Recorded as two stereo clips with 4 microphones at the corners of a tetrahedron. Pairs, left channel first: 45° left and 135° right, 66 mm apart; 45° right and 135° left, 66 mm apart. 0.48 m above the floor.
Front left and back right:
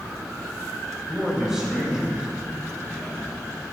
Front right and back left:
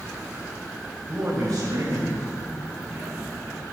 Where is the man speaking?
145° left, 2 m.